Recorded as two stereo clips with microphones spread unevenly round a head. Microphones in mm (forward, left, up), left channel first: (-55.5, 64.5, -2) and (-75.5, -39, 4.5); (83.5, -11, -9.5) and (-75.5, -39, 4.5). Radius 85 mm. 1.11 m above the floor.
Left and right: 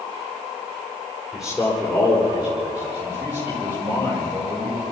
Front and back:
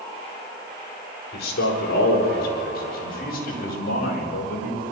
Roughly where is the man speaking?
Ahead.